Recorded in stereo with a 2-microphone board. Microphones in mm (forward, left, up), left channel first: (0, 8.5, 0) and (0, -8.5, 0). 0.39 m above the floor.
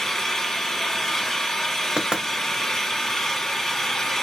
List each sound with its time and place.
0.0 s an engine running: 35° left (ahead or behind), 1.3 m
2.0 s knocking: 55° right (ahead or behind), 0.8 m